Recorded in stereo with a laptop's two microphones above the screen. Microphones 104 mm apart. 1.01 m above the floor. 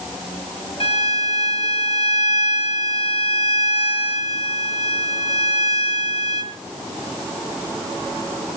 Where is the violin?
65° left (ahead or behind), 1.8 m.